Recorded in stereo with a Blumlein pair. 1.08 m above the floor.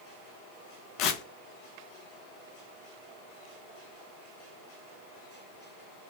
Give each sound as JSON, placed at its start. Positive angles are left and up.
{"t": 1.0, "sound": "tearing paper", "azimuth_deg": 40, "distance_m": 0.5}